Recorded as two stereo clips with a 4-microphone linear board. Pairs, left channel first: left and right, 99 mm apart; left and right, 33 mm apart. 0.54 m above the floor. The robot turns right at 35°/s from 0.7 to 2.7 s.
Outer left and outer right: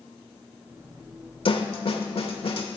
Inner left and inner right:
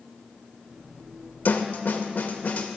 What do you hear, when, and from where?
1.4 s a snare drum: 65° left (ahead or behind), 1.0 m; by 2.7 s 60° left (ahead or behind), 1.0 m